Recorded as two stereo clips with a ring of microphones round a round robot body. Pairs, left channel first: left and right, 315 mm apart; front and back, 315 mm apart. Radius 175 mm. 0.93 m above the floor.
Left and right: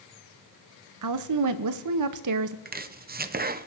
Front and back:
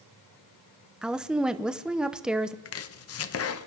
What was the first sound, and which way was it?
A woman speaking, 95° right.